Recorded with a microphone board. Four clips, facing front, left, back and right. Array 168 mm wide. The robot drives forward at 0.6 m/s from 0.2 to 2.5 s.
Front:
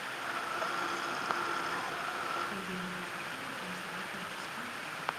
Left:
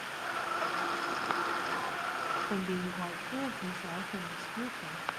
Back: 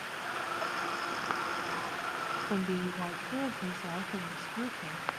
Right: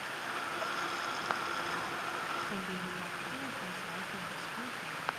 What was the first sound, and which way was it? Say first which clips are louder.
A woman speaking: left 5 dB, back 6 dB; 145° left.